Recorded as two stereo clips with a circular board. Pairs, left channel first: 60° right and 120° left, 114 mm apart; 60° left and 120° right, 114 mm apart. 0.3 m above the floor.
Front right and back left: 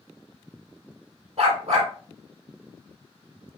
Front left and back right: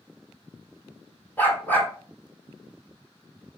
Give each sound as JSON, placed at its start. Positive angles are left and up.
{"t": 1.4, "sound": "a dog barking", "azimuth_deg": 135, "distance_m": 1.7}